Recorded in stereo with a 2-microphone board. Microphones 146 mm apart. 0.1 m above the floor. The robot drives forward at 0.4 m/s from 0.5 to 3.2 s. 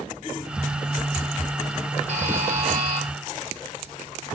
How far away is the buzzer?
About 1.6 m.